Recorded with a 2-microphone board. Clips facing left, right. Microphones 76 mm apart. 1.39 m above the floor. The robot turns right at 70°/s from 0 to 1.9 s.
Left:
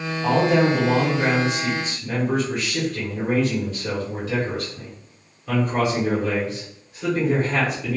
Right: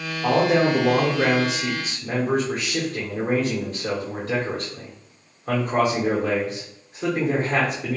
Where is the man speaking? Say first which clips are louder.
Even; 155° right, 0.8 m; by 8.0 s 40° right, 0.8 m.